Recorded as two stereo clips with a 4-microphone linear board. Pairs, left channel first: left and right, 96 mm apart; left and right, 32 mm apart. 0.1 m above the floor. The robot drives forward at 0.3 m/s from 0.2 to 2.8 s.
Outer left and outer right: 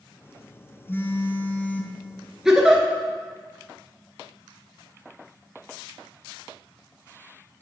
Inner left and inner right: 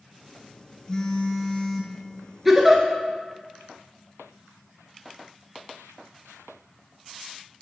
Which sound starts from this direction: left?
A phone buzzing, at 0.9 s.